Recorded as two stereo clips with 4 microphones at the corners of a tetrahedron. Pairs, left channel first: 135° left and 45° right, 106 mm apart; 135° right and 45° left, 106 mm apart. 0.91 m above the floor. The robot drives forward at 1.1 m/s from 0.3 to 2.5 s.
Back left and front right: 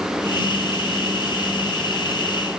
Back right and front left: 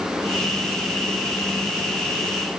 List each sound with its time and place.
Only background noise.